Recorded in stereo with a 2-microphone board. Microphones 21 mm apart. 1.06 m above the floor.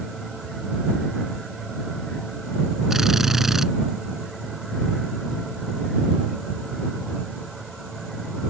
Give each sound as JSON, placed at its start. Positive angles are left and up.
{"t": 2.9, "sound": "a drill", "side_deg": -20}